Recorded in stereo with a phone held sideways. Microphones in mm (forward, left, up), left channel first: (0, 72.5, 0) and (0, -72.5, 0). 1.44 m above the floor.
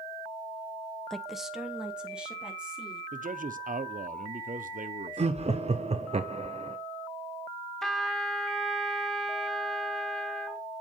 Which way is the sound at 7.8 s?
5° left (ahead or behind).